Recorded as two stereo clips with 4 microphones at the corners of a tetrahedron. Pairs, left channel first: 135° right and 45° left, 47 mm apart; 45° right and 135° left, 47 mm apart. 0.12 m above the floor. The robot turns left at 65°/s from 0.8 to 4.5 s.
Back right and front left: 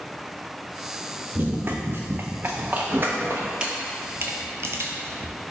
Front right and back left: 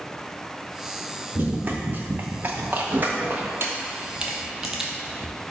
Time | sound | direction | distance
1.4 | running footsteps | 95° left | 0.7 m
3.6 | a camera shutter | 115° left | 0.5 m